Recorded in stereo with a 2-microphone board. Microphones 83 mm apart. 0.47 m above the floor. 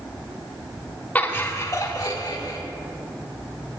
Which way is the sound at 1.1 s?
20° left (ahead or behind).